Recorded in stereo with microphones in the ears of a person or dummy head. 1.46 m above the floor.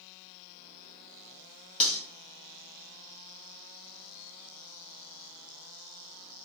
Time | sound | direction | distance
1.8 | cutlery clinking | 30° left (ahead or behind) | 1.6 m